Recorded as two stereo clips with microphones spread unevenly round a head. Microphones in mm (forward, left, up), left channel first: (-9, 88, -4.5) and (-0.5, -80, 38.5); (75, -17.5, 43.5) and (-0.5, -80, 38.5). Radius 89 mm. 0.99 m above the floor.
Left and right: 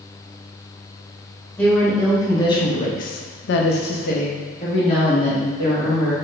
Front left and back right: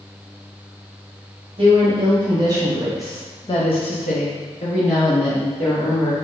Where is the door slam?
No door slam in this recording.